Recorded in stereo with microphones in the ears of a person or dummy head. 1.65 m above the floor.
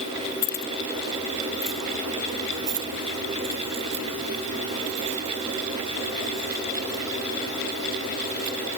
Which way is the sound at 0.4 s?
55° left (ahead or behind).